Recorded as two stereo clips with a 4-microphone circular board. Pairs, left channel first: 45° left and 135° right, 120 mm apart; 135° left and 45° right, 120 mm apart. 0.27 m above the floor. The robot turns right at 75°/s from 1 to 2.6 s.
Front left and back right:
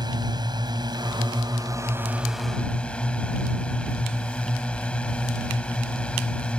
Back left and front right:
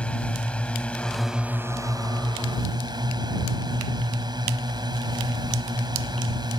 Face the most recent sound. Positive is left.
turn(degrees=-30)